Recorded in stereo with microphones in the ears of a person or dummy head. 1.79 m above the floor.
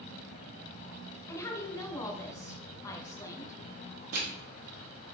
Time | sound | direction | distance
1.3 | a woman speaking | 25° left (ahead or behind) | 0.8 m
4.1 | crushing | 50° right (ahead or behind) | 1.2 m